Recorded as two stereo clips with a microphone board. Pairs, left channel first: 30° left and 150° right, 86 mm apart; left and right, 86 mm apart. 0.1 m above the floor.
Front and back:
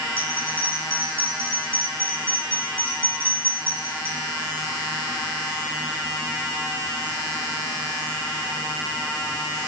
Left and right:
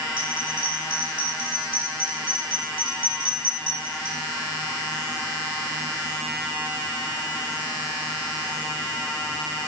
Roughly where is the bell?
Right.